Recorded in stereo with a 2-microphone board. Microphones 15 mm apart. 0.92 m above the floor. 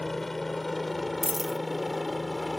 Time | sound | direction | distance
0.0 | a helicopter | 15° left (ahead or behind) | ?
1.2 | a dropped coin | 5° right (ahead or behind) | ?